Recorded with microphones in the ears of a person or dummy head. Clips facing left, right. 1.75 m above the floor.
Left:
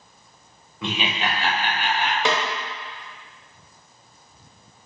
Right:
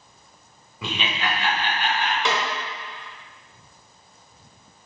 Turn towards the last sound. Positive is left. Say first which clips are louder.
# left 3 dB
turn(degrees=45)  # may be behind; listen again after turning